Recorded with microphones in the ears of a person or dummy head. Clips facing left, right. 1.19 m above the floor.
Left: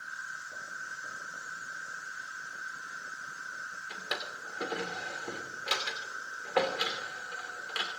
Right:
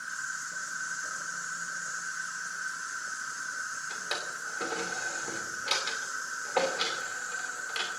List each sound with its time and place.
0.0 s an insect: 60° right (ahead or behind), 1.6 m
3.9 s a drawer: 10° left (ahead or behind), 2.5 m